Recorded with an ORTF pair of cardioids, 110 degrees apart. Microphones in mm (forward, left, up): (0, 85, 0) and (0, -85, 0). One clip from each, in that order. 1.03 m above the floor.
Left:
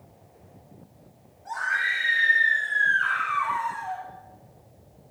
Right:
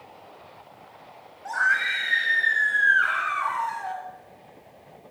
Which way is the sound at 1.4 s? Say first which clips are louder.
Right 3 dB; 65° right.